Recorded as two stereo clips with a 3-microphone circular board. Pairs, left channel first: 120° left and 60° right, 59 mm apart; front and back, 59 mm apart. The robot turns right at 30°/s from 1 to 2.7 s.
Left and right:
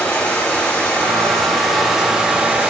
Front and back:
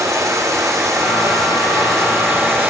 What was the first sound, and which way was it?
Running water, 175° right.